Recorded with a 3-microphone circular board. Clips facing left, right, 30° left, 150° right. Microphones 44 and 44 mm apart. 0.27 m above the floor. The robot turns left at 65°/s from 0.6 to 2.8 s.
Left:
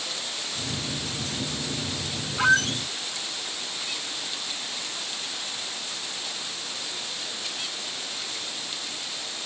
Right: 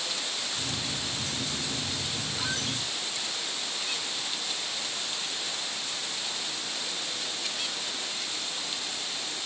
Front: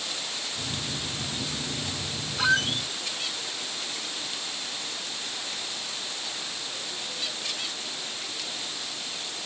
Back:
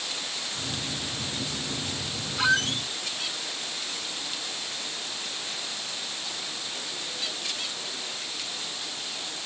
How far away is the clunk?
I don't hear a clunk.